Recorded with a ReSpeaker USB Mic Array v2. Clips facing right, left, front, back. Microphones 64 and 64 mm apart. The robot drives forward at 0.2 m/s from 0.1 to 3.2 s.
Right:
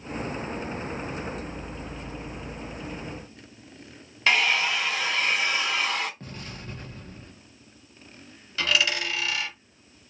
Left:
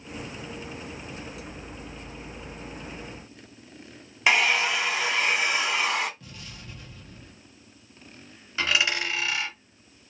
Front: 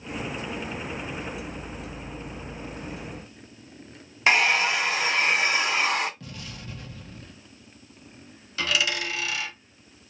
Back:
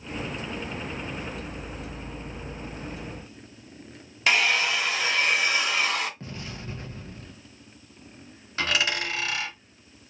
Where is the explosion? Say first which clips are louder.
Right 5 dB, back 3 dB; 130° right, 0.7 m.